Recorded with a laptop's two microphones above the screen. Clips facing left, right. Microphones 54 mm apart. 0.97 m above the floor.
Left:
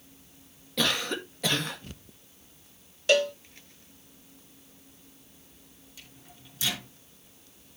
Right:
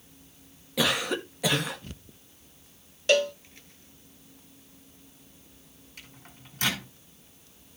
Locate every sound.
0.8 s a cough: 10° right (ahead or behind), 1.7 m
3.1 s a cowbell: centre (ahead or behind), 0.7 m
6.0 s a microwave: 50° right (ahead or behind), 4 m